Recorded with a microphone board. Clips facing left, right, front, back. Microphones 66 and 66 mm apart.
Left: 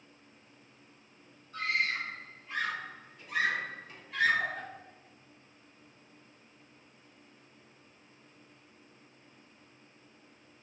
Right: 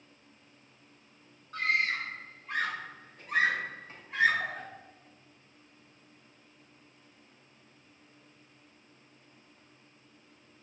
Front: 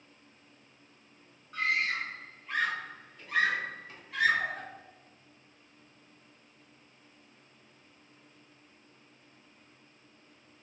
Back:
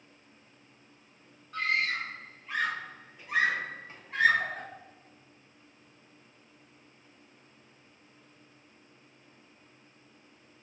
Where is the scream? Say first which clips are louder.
Right 2 dB, back 1 dB; 85° right, 1.7 m; by 4.7 s 160° right, 1.0 m.